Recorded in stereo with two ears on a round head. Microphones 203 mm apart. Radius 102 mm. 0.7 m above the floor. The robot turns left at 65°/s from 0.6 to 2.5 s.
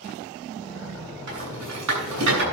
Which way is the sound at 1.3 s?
55° right (ahead or behind).